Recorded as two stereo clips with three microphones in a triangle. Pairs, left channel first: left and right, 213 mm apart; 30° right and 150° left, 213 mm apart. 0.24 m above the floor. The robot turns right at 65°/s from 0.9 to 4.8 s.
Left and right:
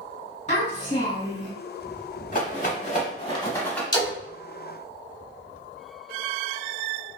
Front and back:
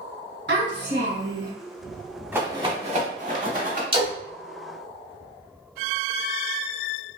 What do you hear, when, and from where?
0.5 s a child speaking: 135° left, 2.0 m; by 1.5 s 175° left, 2.0 m
2.3 s a rattle: 75° left, 0.8 m; by 3.8 s 175° left, 0.8 m
3.9 s a splash: 125° left, 1.0 m; by 4.1 s 140° left, 1.0 m